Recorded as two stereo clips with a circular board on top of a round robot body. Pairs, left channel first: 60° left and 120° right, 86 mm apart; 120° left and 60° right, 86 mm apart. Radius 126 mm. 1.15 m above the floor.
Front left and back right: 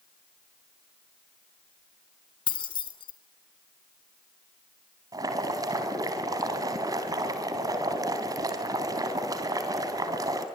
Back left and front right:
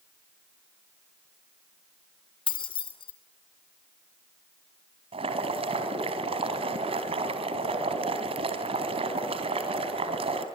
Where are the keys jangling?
90° left, 3 m.